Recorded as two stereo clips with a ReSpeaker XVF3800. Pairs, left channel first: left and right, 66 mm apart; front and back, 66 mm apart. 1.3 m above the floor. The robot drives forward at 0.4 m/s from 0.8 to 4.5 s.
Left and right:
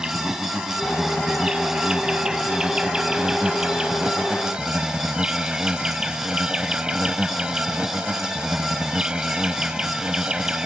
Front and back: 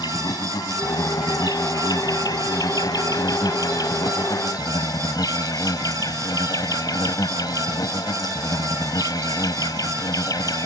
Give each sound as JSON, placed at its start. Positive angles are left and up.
{"t": 0.0, "sound": "an insect", "azimuth_deg": -10}